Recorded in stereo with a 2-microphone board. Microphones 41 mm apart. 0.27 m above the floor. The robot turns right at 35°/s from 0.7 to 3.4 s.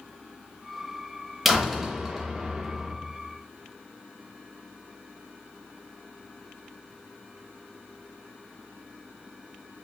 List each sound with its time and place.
1.4 s a door slam: 5° right (ahead or behind), 0.6 m; by 2.9 s 20° right (ahead or behind), 0.6 m